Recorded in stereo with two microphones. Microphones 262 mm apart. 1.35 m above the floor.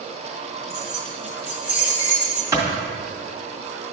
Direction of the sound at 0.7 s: 5° right (ahead or behind).